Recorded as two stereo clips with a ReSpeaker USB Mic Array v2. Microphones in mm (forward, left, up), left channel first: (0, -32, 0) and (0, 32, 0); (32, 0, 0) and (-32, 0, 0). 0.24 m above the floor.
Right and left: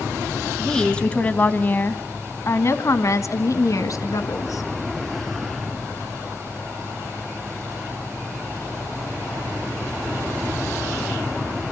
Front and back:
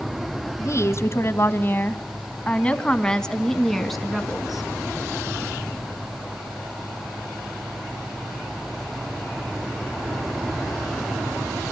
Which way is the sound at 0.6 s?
10° right.